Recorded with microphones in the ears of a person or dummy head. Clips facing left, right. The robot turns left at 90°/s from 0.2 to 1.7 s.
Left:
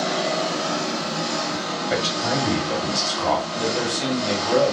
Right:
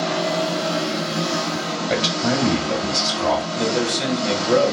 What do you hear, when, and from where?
0.0 s an engine running: 20° left, 2.5 m; by 4.7 s 115° right, 2.5 m
1.9 s a man speaking: 55° right (ahead or behind), 2 m
3.6 s a man speaking: 55° right (ahead or behind), 2 m